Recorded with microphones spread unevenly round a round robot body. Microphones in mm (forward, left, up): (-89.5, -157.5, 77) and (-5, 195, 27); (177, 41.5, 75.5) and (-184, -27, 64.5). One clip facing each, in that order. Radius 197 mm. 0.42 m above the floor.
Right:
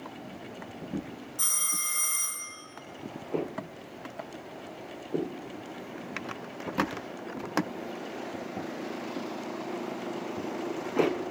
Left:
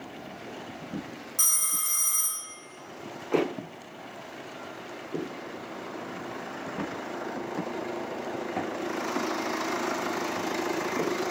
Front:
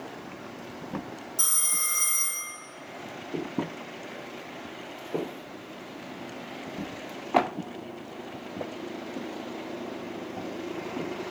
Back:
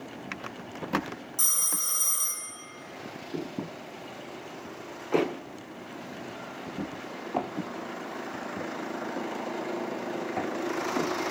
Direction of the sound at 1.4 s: 110° left.